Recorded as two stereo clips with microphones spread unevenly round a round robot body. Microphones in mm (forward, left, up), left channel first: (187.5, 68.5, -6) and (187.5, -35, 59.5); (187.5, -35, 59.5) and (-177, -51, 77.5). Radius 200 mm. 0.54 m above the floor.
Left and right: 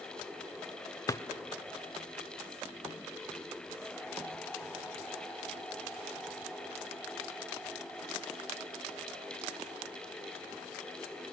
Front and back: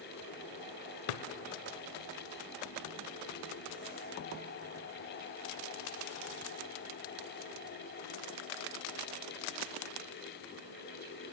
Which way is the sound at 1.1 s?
15° left.